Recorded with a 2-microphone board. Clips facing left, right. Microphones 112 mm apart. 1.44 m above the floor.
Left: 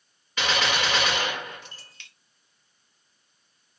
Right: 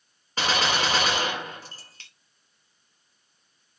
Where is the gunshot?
40° right (ahead or behind), 0.9 m.